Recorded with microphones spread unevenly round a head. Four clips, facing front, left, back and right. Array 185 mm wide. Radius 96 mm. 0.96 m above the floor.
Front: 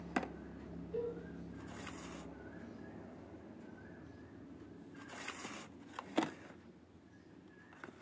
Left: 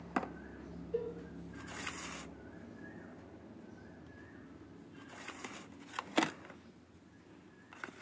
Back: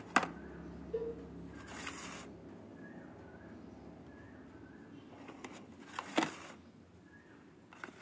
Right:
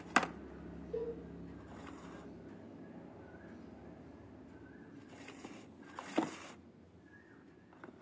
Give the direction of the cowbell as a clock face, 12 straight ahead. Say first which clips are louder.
Left 2 dB, back 1 dB; 4 o'clock.